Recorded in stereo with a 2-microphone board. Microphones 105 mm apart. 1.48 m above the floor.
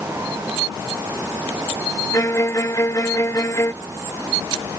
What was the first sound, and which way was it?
A violin, 30° left (ahead or behind).